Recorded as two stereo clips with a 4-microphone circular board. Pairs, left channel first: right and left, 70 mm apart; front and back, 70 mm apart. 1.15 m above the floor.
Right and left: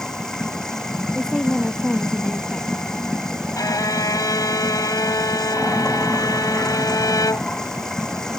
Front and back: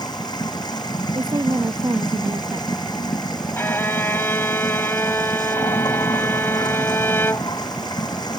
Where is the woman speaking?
170° right.